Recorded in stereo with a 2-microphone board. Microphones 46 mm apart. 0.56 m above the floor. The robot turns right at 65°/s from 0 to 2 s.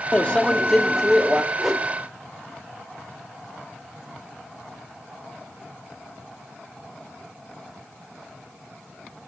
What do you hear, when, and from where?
0.1 s a microwave: 125° left, 0.5 m; by 1.4 s 150° right, 0.5 m
1.6 s a whoosh: centre (ahead or behind), 0.7 m; by 1.9 s 15° left (ahead or behind), 0.7 m